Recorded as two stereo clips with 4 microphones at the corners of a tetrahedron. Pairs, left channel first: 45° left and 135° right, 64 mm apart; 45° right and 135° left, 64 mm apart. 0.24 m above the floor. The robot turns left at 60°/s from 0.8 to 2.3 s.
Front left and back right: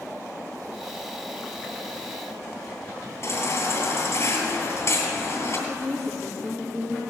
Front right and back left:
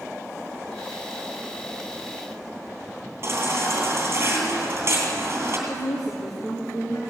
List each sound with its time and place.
3.2 s a baby crying: 85° left, 2.5 m
5.7 s a woman speaking: 40° right, 3 m